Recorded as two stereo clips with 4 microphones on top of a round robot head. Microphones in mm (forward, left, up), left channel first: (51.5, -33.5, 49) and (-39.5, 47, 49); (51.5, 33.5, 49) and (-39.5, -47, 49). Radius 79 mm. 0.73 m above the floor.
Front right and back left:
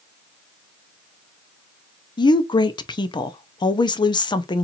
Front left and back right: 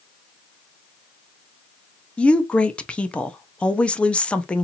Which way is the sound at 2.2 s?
35° right.